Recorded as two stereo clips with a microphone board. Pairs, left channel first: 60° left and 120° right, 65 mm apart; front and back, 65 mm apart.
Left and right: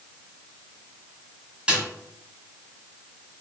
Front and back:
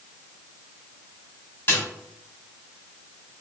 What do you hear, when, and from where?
1.7 s a snare drum: 50° right, 1.7 m